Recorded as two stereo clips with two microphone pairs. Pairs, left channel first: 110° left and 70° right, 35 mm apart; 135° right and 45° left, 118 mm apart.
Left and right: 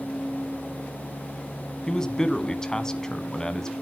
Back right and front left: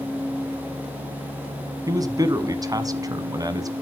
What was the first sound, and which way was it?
A man speaking, 60° left.